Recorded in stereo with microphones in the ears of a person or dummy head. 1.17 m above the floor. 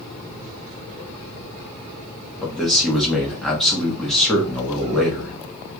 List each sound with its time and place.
2.4 s a man speaking: centre (ahead or behind), 1.1 m